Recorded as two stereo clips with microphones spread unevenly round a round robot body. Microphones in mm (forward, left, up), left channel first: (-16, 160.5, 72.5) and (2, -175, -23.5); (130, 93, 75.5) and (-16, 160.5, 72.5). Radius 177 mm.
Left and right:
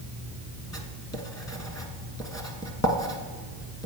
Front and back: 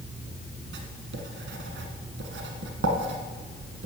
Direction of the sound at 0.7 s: 175° left.